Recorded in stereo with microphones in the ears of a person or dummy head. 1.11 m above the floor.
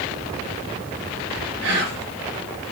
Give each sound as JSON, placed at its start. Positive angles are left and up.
{"t": 1.6, "sound": "whispering", "side_deg": -65, "distance_m": 1.6}